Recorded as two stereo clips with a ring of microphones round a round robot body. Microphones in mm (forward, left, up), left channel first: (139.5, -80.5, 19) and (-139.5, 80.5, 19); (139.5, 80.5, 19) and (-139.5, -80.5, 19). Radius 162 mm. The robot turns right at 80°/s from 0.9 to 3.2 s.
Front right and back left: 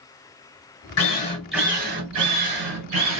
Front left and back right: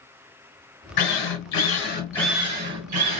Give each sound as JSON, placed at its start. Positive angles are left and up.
{"t": 1.0, "sound": "a drill", "azimuth_deg": 15, "distance_m": 2.0}